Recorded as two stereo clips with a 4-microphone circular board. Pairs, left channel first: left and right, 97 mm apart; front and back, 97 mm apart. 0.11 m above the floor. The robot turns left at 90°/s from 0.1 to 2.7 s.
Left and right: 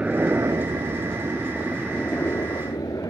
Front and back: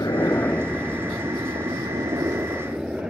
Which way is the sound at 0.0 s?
20° right.